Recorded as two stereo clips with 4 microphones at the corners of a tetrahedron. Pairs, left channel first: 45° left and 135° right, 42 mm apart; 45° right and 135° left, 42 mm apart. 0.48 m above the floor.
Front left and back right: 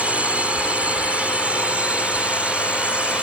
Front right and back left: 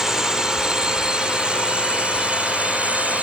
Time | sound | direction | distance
0.0 | a drone | 155° right | ?